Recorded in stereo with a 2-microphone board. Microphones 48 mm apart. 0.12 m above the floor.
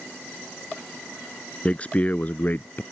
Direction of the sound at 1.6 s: 25° left (ahead or behind).